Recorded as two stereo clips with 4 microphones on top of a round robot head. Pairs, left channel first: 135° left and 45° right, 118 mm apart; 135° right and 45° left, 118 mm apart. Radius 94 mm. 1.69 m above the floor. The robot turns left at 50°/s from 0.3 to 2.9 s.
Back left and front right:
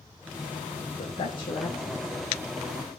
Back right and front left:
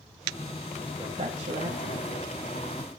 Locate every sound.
1.0 s a man speaking: 105° left, 1.5 m; by 2.2 s 45° left, 1.5 m